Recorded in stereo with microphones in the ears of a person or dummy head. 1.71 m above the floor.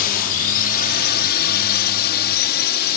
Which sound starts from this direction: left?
A drone, at 0.0 s.